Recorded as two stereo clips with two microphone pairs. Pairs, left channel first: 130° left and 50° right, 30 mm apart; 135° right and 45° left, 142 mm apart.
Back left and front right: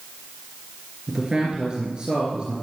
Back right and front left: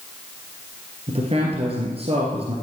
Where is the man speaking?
10° left, 3 m.